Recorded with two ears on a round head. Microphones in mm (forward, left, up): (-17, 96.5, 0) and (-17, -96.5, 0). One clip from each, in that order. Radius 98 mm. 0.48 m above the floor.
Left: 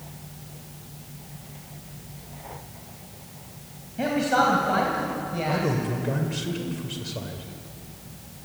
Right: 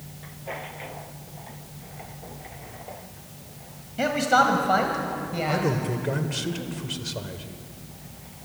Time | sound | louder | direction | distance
4.0 | a man speaking | right 2 dB | 35° right (ahead or behind) | 3 m
5.5 | a man speaking | right 1 dB | 20° right (ahead or behind) | 2 m